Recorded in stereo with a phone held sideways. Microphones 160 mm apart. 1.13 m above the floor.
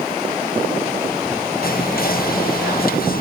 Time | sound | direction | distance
1.6 | whispering | 65° left (ahead or behind) | 1.0 m